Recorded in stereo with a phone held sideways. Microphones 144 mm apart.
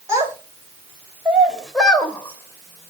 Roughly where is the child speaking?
Right.